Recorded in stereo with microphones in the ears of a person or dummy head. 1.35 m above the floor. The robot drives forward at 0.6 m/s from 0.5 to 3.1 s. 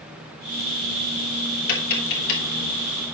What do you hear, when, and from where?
1.7 s tapping: 60° left (ahead or behind), 3 m; by 2.4 s 65° left (ahead or behind), 2.5 m